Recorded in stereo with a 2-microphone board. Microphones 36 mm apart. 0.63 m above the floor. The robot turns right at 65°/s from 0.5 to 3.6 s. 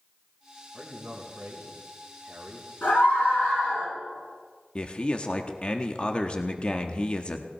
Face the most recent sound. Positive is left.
turn(degrees=30)  # may be behind; listen again after turning